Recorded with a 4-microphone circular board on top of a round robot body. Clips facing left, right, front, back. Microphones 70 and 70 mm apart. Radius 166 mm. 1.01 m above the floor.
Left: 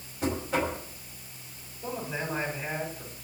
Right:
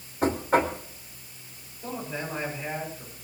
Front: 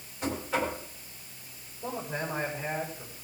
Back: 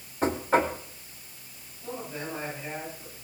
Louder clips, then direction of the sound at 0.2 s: Right 5 dB, back 6 dB; 130° right.